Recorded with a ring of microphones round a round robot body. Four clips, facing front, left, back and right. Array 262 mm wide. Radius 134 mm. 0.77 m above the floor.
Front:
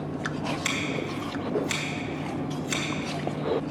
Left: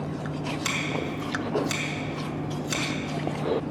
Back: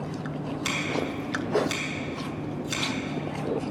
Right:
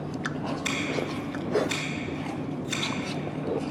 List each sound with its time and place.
0.7 s scissors: 70° left, 3 m